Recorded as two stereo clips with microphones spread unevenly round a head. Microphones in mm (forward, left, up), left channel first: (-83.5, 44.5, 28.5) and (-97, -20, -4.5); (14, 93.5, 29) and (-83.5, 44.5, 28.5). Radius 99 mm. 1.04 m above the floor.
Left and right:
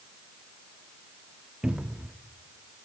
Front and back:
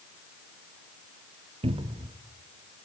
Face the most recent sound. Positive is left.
turn(degrees=180)